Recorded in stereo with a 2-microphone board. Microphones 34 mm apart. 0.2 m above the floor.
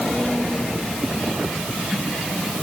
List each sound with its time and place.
Only background noise.